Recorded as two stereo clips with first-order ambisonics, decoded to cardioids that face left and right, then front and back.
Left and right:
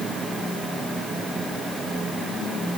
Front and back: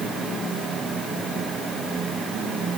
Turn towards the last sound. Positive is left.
No sound to turn to.